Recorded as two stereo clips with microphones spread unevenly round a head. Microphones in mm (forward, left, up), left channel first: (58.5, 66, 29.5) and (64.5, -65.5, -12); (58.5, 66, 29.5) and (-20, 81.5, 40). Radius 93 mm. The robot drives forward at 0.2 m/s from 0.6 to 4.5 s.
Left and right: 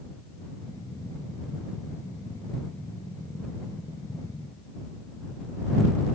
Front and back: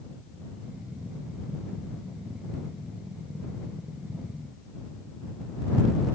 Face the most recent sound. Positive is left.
No sound to turn to.